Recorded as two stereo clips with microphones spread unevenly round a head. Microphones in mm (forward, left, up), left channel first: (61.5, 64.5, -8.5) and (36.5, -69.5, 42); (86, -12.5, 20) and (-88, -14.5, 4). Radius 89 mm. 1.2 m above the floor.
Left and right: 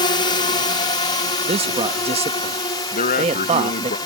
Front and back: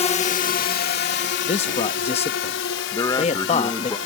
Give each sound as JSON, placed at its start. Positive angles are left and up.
{"t": 0.0, "sound": "a drone", "azimuth_deg": 55}
{"t": 1.4, "sound": "a man speaking", "azimuth_deg": -55}
{"t": 2.9, "sound": "a man speaking", "azimuth_deg": 70}